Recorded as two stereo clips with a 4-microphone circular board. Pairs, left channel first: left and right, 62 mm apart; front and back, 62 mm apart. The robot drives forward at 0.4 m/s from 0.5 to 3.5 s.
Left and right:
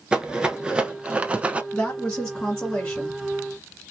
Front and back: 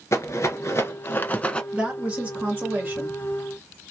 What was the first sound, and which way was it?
A rattle, 20° right.